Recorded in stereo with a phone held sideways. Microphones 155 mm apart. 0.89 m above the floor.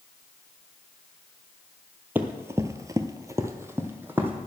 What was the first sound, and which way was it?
Running footsteps, 10° right (ahead or behind).